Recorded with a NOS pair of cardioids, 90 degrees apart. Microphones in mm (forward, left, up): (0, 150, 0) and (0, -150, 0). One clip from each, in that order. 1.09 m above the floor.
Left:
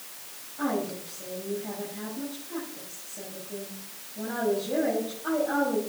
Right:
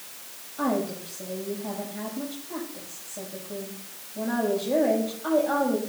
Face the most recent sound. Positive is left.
turn(degrees=-45)